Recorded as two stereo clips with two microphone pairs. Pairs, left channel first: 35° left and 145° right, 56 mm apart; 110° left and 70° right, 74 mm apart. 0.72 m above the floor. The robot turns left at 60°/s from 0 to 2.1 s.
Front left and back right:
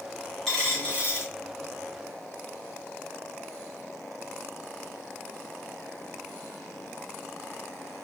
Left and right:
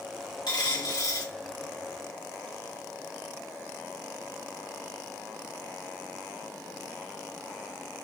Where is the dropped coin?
125° left, 2 m; by 1.3 s 75° left, 2 m.